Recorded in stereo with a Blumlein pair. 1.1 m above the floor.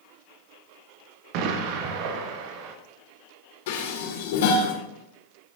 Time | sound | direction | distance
1.3 | an explosion | 45° right | 1.0 m
3.7 | dishes clattering | 55° left | 2 m